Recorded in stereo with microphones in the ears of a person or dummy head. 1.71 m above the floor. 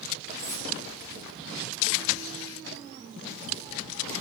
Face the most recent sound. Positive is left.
turn(degrees=15)  # may be behind; listen again after turning